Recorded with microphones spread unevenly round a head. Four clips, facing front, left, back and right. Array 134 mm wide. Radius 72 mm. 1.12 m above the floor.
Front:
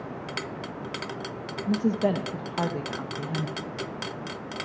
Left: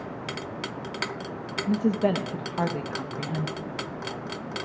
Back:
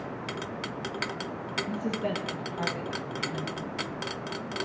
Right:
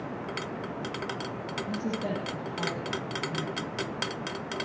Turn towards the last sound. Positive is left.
turn(degrees=45)